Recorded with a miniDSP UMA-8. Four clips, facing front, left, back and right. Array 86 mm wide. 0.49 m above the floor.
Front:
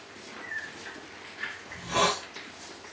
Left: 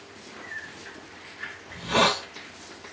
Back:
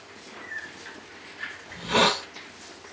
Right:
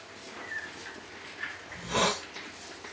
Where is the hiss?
150° left, 1.3 m.